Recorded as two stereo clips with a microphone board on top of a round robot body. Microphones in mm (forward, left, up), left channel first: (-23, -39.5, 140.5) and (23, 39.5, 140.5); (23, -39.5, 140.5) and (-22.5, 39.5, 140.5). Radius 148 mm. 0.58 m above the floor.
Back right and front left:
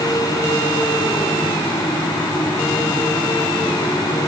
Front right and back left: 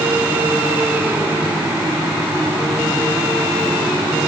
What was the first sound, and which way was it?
Only background noise.